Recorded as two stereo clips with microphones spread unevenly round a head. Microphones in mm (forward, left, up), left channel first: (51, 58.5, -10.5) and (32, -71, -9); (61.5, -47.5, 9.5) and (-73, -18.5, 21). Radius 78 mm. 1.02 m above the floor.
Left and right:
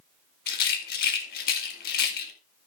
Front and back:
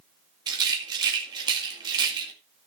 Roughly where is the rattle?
Left.